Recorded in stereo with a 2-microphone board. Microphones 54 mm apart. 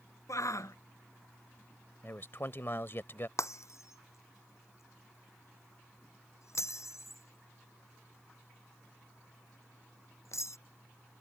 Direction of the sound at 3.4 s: 65° left (ahead or behind).